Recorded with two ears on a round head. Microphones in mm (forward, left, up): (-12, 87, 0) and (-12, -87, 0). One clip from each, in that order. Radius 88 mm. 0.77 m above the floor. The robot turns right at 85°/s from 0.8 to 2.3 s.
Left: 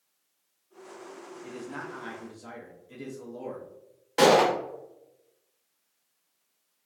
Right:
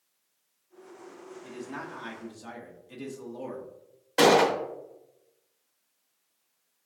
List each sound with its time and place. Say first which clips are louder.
1.4 s a man speaking: even; 5° left (ahead or behind), 0.6 m; by 3.6 s 15° right (ahead or behind), 0.6 m
4.2 s a gunshot: even; 5° right (ahead or behind), 0.8 m